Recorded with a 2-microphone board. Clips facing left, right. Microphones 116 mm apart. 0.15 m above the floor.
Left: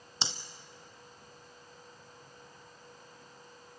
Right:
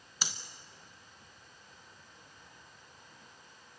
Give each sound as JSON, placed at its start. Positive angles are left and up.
{"t": 0.2, "sound": "breathing", "side_deg": 25, "distance_m": 0.9}